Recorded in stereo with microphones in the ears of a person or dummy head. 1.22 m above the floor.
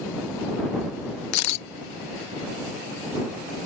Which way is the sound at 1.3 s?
80° left.